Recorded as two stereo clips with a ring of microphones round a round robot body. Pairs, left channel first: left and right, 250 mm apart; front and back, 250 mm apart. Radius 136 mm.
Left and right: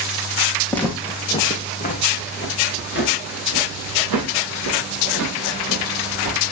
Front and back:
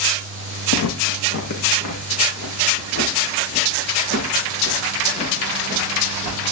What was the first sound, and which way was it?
Footsteps, 5° left.